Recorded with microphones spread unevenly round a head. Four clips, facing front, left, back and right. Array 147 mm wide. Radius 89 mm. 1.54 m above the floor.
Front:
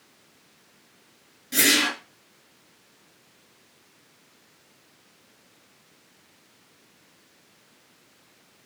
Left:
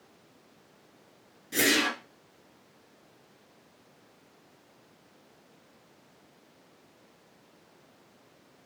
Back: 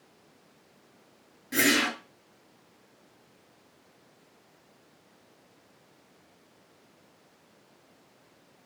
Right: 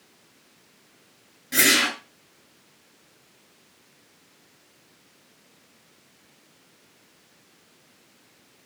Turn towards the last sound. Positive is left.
turn(degrees=-95)